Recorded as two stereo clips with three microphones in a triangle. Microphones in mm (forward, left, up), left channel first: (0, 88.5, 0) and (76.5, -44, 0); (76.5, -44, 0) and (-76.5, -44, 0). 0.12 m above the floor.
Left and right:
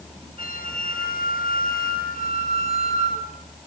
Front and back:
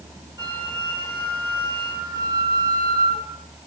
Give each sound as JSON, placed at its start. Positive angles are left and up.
{"t": 0.4, "sound": "a flute", "azimuth_deg": 115, "distance_m": 4.0}